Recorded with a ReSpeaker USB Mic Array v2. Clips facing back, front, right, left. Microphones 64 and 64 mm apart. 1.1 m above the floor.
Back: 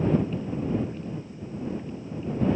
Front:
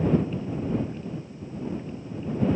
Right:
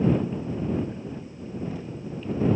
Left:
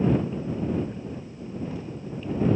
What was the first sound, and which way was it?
Only background noise.